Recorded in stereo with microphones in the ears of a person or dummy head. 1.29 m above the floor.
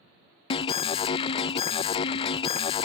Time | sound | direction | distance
0.5 | an alarm | 30° left (ahead or behind) | ?